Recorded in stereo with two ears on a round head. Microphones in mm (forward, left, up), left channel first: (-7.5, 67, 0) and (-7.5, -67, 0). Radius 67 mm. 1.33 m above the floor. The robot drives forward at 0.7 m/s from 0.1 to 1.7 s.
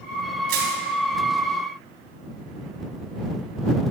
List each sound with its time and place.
0.5 s crushing: 65° right (ahead or behind), 4 m; by 0.8 s 70° right (ahead or behind), 4 m